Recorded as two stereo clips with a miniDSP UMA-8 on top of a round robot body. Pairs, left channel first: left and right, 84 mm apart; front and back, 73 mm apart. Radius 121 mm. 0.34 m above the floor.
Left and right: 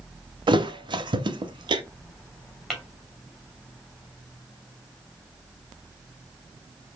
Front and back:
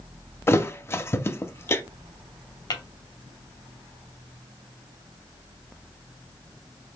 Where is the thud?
60° right, 0.6 m.